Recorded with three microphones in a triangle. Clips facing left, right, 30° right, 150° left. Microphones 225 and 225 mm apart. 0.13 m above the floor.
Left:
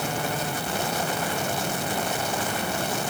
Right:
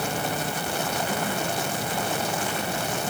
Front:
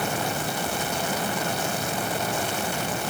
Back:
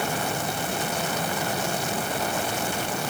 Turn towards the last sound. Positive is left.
No sound to turn to.